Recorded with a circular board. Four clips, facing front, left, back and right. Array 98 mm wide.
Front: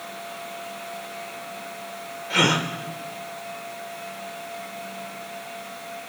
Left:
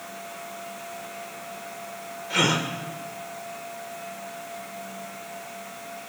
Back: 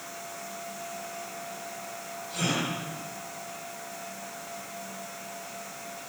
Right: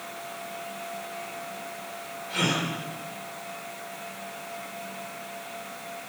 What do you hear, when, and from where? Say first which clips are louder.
2.3 s a gasp: left 3 dB, front 8 dB; 25° left, 2.5 m